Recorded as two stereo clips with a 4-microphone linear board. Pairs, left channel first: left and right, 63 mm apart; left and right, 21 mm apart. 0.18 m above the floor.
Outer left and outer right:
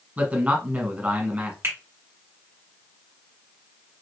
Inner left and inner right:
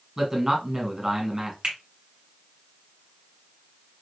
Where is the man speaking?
25° right (ahead or behind), 1.4 m.